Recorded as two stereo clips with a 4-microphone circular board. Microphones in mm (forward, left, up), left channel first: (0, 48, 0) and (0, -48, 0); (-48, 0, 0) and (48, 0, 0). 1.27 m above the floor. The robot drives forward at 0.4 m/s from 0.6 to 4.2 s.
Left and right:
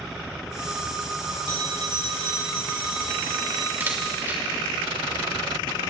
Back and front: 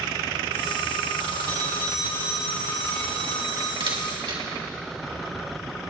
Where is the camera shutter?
25° right, 2.5 m.